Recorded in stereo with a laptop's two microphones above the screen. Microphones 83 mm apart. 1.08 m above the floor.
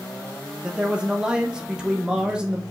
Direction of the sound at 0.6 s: 10° right (ahead or behind).